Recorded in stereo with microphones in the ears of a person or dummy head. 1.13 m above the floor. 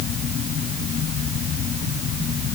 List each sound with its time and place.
Only background noise.